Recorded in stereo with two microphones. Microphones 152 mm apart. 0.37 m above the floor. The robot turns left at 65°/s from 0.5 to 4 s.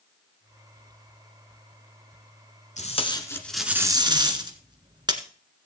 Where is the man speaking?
No man speaking in this recording.